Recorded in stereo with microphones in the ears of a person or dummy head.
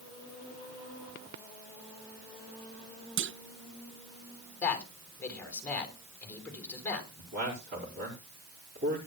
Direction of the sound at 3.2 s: 55° right (ahead or behind).